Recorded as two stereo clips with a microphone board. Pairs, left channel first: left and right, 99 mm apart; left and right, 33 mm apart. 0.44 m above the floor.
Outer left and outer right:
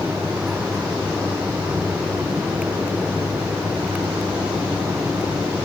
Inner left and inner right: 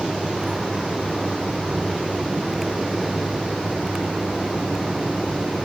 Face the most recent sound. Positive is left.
No sound to turn to.